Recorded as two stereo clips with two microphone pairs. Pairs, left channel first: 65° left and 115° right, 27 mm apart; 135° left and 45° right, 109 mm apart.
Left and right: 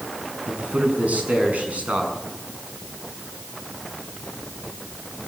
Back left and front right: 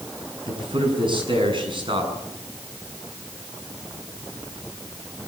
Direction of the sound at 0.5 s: 85° right.